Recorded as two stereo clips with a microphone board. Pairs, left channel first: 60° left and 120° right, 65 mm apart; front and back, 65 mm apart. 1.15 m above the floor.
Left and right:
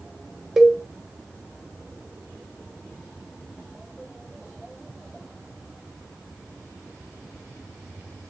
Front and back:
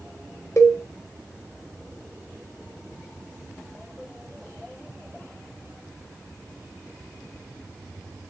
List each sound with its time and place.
0.6 s a cowbell: 40° right, 0.5 m